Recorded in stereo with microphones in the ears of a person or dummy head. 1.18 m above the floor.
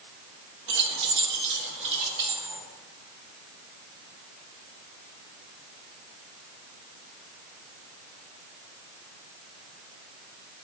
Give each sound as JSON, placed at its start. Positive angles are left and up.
{"t": 0.7, "sound": "keys jangling", "side_deg": -60, "distance_m": 0.8}